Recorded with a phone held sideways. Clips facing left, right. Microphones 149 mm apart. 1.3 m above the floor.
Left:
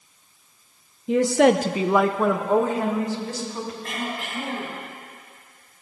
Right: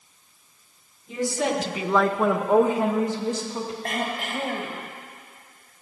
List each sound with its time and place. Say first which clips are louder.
1.1 s a woman speaking: left 9 dB; 80° left, 0.9 m; by 3.7 s 25° right (ahead or behind), 3 m
3.8 s throat clearing: right 2 dB; 65° right (ahead or behind), 2.5 m